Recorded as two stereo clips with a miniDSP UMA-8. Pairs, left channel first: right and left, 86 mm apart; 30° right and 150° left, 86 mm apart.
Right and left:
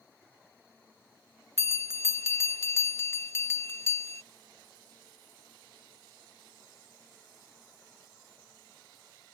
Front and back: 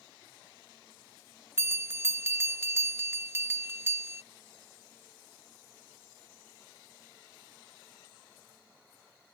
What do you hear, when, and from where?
1.6 s a bell: 150° right